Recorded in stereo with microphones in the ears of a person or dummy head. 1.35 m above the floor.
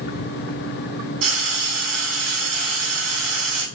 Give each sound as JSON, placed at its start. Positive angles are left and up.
{"t": 1.2, "sound": "frying", "side_deg": -70, "distance_m": 2.0}